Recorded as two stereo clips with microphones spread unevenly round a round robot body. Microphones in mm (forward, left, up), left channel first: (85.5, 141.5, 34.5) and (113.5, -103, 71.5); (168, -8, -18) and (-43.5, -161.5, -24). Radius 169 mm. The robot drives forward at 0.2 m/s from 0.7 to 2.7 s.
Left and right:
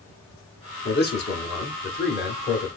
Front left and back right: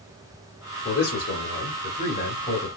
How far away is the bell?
I don't hear a bell.